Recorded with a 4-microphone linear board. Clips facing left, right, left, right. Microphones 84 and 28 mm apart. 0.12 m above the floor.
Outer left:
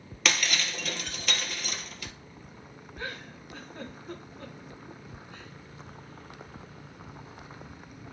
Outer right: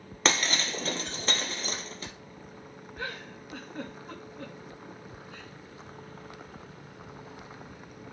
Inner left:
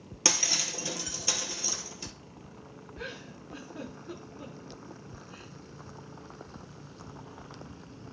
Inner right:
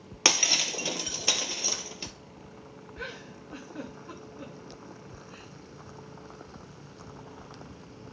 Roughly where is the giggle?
Right.